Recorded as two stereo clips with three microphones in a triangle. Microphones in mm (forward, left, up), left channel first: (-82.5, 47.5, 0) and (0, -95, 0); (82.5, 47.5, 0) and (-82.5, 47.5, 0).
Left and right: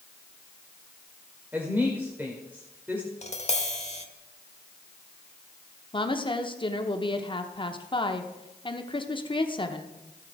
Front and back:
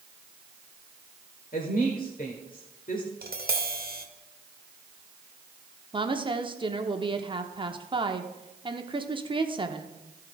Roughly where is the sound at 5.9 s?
Behind left.